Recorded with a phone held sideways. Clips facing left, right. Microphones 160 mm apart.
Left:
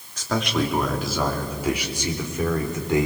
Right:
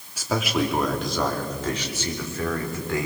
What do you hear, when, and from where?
0.2 s a man speaking: 10° right (ahead or behind), 2.5 m; by 3.1 s 20° left (ahead or behind), 4 m